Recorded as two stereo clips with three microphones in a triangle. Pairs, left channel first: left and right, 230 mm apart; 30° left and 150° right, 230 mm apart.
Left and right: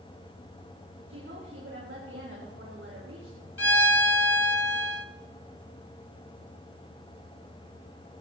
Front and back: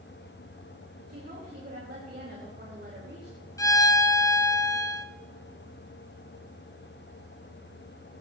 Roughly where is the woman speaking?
Right.